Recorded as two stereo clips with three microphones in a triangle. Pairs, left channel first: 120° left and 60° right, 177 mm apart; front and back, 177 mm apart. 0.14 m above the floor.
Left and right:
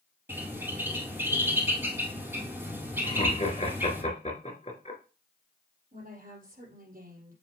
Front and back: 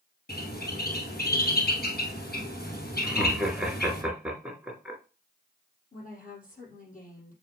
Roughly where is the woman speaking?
Ahead right.